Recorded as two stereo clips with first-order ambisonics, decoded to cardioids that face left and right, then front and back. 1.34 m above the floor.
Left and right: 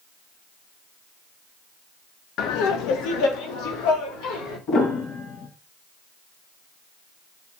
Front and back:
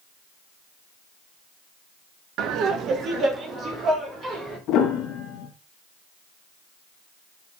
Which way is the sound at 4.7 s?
40° left.